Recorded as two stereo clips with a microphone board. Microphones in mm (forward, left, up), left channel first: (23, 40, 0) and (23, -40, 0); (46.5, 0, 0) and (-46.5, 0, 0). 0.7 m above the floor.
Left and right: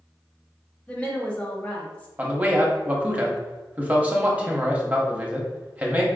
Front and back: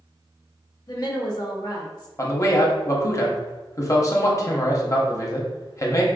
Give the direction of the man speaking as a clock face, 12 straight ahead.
1 o'clock.